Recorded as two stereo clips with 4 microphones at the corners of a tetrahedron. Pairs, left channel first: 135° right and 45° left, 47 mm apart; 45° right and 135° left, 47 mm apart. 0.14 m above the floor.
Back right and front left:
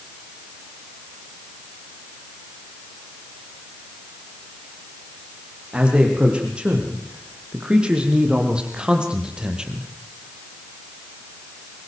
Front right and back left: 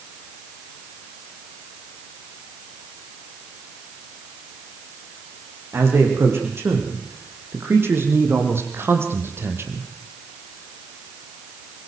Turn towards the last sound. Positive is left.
turn(degrees=115)